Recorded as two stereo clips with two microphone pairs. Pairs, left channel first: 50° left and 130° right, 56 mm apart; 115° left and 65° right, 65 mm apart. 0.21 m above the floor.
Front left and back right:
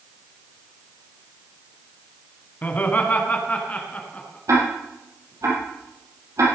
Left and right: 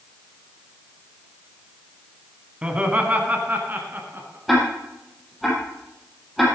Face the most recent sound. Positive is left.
turn(degrees=-155)